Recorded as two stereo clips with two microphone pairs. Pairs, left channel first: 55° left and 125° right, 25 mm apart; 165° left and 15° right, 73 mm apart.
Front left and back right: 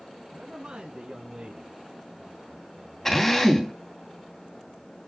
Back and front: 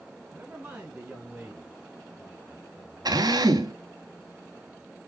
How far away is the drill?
About 2.5 m.